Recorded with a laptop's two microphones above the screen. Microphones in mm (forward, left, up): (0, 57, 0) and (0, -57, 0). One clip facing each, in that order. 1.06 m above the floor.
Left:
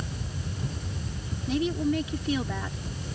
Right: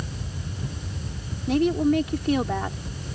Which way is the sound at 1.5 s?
60° right (ahead or behind).